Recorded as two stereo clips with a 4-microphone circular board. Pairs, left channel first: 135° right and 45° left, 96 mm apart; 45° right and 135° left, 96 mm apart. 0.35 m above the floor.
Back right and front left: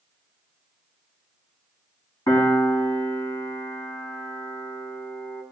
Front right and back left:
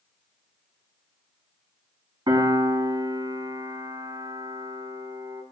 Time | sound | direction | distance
2.3 | a piano | 175° left | 2 m